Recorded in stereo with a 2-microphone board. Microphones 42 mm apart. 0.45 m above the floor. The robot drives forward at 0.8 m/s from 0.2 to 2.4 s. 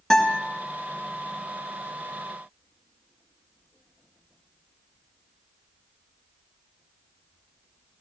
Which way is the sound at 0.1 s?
15° left (ahead or behind).